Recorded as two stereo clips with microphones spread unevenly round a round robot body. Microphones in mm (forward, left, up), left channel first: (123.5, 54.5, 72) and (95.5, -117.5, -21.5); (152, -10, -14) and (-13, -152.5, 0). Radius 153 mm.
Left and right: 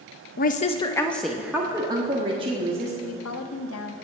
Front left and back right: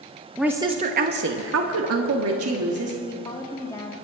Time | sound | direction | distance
0.4 | a woman speaking | 125° left | 0.7 m
3.0 | a woman speaking | 120° left | 0.9 m